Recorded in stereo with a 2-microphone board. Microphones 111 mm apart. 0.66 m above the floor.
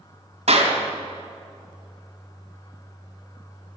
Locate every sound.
0.5 s a clap: 80° right, 3 m